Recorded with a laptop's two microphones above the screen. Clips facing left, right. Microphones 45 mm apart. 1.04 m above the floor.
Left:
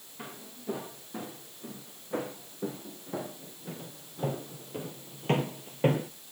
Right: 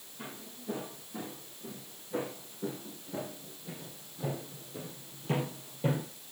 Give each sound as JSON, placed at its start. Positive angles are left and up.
{"t": 0.2, "sound": "footsteps", "side_deg": 35, "distance_m": 5.0}